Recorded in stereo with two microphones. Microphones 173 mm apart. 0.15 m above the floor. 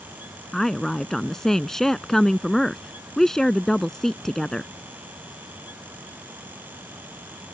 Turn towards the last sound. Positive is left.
turn(degrees=0)  # may be behind; listen again after turning